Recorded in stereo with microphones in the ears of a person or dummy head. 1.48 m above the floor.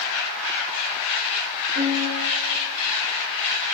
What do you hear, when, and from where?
1.8 s a piano: 65° right (ahead or behind), 4 m